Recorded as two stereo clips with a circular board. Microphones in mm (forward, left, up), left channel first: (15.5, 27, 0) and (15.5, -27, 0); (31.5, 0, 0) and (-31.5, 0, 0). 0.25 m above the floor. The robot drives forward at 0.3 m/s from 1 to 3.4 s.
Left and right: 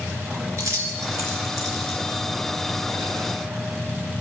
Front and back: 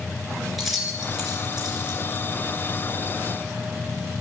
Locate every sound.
0.6 s keys jangling: 90° right, 2.5 m; by 2.2 s 100° right, 2.5 m